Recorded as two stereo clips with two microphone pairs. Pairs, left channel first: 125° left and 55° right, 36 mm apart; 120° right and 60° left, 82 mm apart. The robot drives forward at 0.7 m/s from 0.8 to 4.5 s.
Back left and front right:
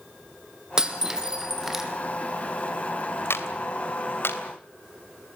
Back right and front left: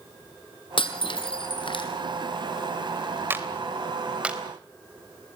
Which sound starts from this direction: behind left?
A clap, at 3.3 s.